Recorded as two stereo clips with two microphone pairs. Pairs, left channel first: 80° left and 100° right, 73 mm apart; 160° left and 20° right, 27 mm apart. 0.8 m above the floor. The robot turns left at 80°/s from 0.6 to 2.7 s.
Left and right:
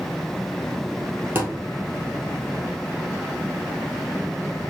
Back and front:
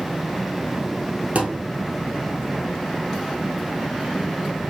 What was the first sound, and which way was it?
A thud, 40° right.